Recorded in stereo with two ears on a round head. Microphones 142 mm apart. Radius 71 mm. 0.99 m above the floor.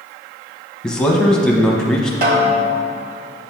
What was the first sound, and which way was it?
A man speaking, 5° left (ahead or behind).